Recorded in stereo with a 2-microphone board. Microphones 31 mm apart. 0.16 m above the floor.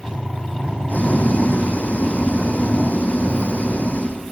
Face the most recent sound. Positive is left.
turn(degrees=60)  # may be behind; listen again after turning